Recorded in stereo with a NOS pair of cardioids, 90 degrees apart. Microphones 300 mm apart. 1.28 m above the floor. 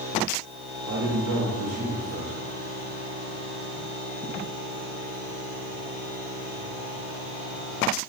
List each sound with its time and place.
0.9 s a man speaking: 65° right, 2.5 m